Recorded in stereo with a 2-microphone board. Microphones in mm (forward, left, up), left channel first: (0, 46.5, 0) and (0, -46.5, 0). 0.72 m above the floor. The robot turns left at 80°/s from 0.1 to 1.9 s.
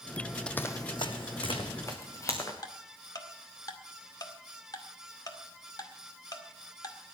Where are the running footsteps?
10° left (ahead or behind), 1.1 m; by 2.5 s 30° left (ahead or behind), 3.5 m.